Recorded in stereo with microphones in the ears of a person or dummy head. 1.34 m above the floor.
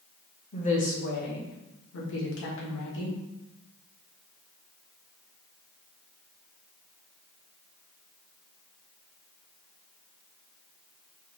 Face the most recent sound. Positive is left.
turn(degrees=80)